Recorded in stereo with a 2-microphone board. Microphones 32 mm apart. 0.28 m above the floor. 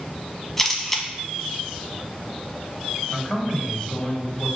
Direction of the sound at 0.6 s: 5° left (ahead or behind).